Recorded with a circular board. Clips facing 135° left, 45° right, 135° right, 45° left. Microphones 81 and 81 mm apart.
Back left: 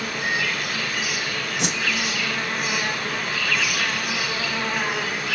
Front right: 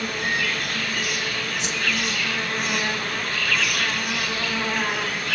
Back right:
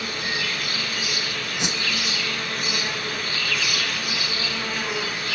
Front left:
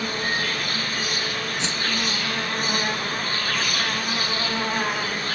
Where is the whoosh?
150° left, 0.7 m.